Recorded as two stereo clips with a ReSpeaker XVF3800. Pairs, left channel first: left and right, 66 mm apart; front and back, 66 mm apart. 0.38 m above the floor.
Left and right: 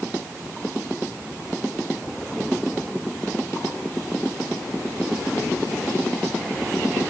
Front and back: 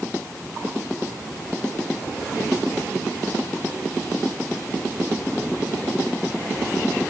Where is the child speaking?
I don't hear a child speaking.